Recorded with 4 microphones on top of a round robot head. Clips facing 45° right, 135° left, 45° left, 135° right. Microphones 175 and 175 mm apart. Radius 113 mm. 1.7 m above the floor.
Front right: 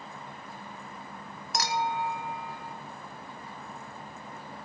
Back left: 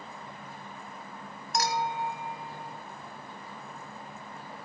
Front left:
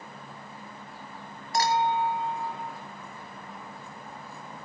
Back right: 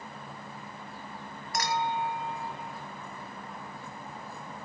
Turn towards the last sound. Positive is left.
turn(degrees=-15)